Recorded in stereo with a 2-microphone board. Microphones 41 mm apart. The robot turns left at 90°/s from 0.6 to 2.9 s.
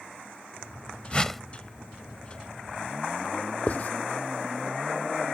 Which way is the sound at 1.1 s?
30° left (ahead or behind).